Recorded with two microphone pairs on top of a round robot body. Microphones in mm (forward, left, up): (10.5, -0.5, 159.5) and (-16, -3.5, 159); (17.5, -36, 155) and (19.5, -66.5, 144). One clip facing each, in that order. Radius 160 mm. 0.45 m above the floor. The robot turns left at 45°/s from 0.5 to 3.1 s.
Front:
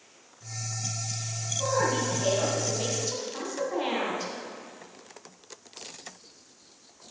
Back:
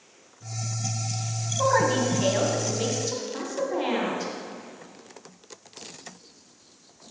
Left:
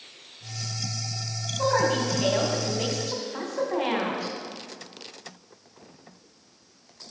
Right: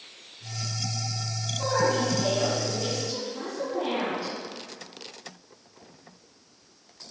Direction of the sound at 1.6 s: 165° left.